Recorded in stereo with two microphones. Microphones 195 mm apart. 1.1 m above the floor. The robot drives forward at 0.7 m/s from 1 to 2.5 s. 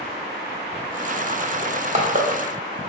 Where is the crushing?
30° right (ahead or behind), 1.0 m; by 2.3 s 45° right (ahead or behind), 0.7 m.